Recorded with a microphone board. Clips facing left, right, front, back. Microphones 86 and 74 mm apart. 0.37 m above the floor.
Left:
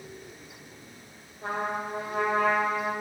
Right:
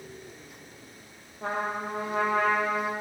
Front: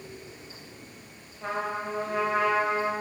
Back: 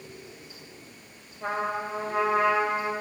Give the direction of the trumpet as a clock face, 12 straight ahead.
3 o'clock.